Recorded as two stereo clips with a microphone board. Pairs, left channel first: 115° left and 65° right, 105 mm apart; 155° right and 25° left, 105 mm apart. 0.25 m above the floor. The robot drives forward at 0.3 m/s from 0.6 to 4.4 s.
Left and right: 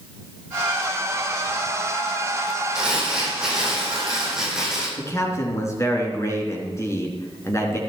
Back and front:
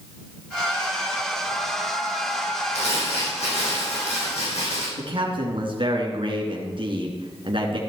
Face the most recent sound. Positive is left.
turn(degrees=55)